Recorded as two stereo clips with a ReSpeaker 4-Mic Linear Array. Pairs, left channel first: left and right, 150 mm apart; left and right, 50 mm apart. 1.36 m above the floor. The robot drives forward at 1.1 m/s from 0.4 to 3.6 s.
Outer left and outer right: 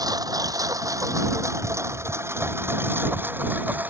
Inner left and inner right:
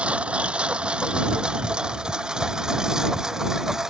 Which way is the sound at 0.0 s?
25° right (ahead or behind).